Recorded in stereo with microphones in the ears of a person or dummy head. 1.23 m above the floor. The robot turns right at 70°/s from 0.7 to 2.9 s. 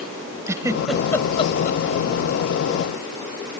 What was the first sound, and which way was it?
A giggle, 15° right (ahead or behind).